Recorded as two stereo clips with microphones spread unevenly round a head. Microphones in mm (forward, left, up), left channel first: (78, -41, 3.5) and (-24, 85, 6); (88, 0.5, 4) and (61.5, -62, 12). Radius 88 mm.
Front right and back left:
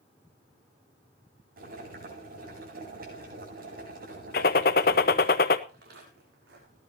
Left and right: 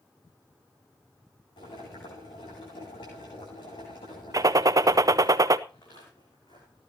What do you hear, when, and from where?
1.6 s boiling: 100° left, 9 m
4.3 s a gunshot: 90° right, 0.9 m
5.7 s footsteps: 110° left, 6.5 m; by 6.9 s 115° left, 6.5 m